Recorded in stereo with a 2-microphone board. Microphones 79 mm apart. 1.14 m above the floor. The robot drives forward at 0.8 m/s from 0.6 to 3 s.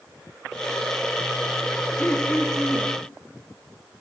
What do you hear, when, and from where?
2.0 s throat clearing: 20° left (ahead or behind), 0.8 m; by 2.9 s 10° left (ahead or behind), 1.5 m